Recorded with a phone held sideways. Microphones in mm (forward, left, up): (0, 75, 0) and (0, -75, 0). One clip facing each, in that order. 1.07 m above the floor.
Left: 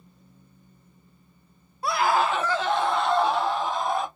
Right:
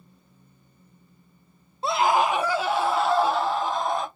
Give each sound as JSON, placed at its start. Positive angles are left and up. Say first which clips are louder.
{"t": 1.8, "sound": "a scream", "louder": "right 2 dB", "side_deg": -25, "distance_m": 0.6}